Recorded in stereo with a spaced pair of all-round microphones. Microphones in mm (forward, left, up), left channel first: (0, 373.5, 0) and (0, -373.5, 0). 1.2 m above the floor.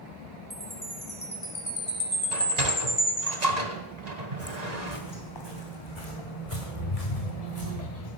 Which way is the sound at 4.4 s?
15° left (ahead or behind).